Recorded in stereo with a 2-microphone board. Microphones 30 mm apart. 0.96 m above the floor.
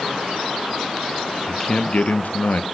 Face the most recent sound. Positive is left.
turn(degrees=80)